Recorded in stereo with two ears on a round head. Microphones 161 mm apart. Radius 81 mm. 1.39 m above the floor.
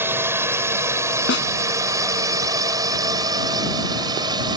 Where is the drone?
10° right (ahead or behind); by 4.6 s 25° right (ahead or behind).